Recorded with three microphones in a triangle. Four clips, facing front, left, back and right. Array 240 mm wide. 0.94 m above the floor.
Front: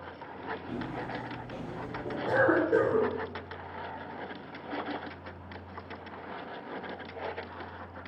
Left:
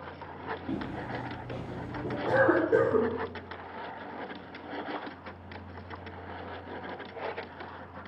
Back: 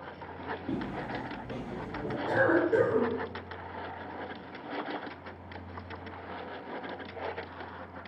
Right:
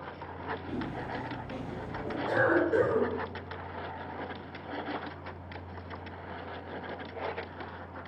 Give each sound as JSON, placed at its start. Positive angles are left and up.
{"t": 0.7, "sound": "footsteps", "azimuth_deg": 150, "distance_m": 1.8}
{"t": 2.3, "sound": "a cough", "azimuth_deg": 70, "distance_m": 0.9}